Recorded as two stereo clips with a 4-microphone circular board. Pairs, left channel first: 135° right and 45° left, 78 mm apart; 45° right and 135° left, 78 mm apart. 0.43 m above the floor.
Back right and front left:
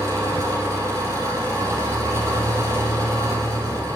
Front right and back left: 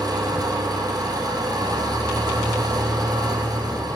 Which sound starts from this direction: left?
An engine running, at 0.0 s.